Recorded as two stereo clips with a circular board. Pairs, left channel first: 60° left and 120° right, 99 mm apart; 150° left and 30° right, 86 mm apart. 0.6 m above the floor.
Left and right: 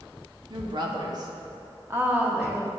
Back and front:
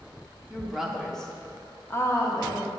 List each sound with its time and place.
0.5 s a woman speaking: 105° right, 1.0 m; by 2.7 s 155° left, 0.9 m